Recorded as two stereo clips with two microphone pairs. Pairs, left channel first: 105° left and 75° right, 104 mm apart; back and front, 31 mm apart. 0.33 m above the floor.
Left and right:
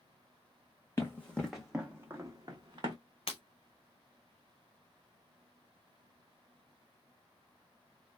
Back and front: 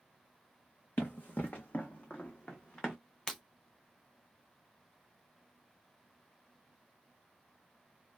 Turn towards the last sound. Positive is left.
turn(degrees=110)